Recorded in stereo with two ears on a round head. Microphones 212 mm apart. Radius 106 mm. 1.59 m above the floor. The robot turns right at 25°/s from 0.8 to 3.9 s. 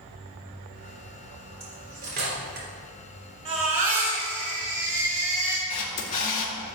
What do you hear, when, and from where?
1.6 s cutlery clinking: 25° right (ahead or behind), 3.5 m; by 2.7 s 50° right (ahead or behind), 3.5 m
3.5 s a baby crying: 25° right (ahead or behind), 3.5 m; by 5.6 s 35° right (ahead or behind), 3.5 m
5.7 s a camera shutter: 30° left (ahead or behind), 2 m